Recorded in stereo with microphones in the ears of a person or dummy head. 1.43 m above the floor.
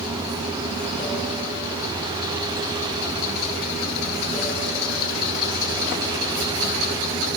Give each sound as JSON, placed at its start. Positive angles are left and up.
{"t": 0.0, "sound": "running water", "side_deg": 50, "distance_m": 4.0}